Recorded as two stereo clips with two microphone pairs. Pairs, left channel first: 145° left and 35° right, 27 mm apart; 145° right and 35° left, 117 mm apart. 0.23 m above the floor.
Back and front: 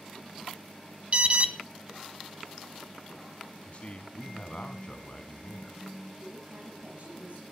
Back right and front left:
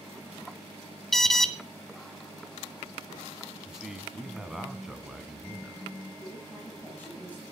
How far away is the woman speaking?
About 7 m.